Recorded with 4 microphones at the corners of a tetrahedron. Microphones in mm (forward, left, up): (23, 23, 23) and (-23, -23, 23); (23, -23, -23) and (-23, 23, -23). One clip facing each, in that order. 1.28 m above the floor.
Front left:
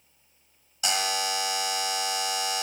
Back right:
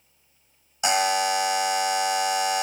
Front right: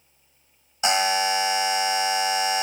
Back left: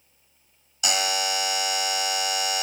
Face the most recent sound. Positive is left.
turn(degrees=-85)